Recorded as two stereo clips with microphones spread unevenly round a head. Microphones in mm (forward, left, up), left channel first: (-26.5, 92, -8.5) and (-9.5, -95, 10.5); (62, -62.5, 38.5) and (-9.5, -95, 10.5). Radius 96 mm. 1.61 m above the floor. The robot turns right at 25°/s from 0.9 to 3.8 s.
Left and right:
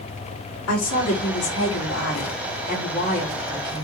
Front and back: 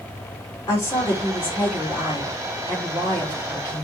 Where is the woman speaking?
95° left, 3 m; by 3.8 s 170° left, 3 m.